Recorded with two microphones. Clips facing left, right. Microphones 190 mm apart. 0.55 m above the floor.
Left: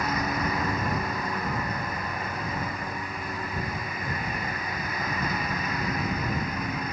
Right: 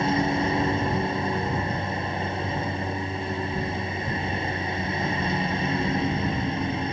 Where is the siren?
No siren in this recording.